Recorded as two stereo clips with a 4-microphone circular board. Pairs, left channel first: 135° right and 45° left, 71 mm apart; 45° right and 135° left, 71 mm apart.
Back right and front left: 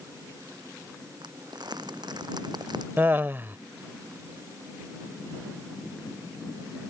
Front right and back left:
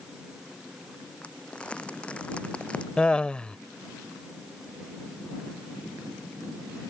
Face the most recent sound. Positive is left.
turn(degrees=20)